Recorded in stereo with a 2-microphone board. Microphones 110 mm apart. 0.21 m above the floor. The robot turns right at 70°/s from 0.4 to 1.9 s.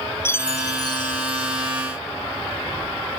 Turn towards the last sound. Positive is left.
turn(degrees=140)